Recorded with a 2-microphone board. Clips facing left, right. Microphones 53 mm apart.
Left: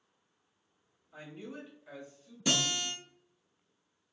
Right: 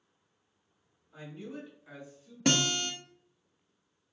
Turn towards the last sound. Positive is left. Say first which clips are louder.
# right 4 dB
turn(degrees=-65)  # may be behind; listen again after turning